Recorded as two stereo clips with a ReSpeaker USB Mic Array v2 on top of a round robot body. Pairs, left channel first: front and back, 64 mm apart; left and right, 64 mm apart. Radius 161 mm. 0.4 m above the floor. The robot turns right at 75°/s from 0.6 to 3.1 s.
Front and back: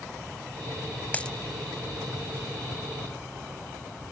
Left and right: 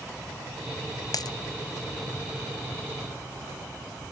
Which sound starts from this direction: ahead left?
A dropped coin, at 1.1 s.